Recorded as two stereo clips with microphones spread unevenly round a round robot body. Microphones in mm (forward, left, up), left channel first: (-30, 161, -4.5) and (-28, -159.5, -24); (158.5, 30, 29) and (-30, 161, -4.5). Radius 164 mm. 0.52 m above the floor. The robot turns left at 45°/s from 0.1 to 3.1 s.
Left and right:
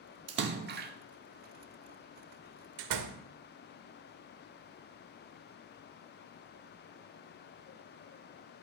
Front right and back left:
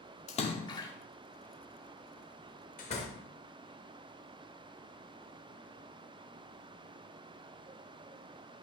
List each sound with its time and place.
0.3 s a splash: 90° right, 0.7 m; by 0.9 s 120° right, 0.7 m
2.8 s a door slam: 100° right, 1.0 m; by 3.2 s 115° right, 1.0 m